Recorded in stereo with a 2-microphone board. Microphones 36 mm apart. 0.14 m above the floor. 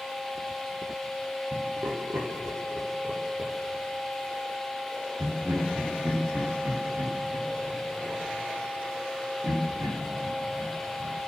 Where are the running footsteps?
I don't hear running footsteps.